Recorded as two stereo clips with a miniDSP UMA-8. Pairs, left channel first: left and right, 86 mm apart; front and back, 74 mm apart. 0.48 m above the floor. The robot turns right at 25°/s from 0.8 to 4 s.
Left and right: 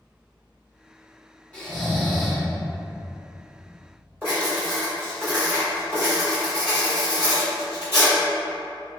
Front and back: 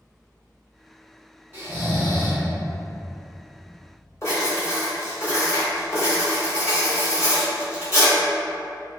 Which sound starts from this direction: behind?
Snoring, at 1.5 s.